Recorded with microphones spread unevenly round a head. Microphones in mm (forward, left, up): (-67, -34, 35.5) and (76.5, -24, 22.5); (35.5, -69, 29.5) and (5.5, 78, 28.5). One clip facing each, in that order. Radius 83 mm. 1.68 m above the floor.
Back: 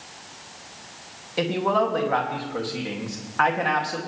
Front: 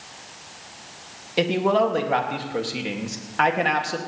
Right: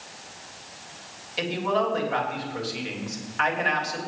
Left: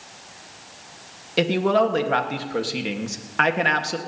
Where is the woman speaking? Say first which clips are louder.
Front 3 dB, left 7 dB; 75° left, 1.7 m.